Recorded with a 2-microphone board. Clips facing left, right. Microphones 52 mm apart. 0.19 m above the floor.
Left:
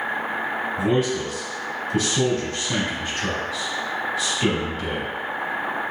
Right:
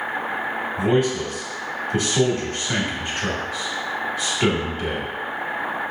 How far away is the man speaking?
About 1.1 m.